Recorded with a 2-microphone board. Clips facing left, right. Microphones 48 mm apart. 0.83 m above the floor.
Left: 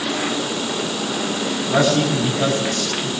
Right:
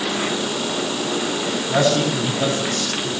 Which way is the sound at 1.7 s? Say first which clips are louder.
Left 1 dB; centre (ahead or behind).